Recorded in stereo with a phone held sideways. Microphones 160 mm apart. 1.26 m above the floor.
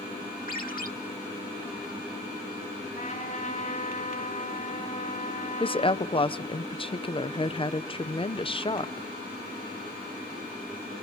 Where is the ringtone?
65° left (ahead or behind), 1.3 m.